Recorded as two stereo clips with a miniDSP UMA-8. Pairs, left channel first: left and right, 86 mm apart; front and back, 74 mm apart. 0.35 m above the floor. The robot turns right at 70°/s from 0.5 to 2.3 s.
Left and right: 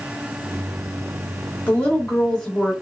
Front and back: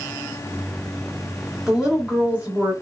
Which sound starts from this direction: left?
A woman speaking, at 1.7 s.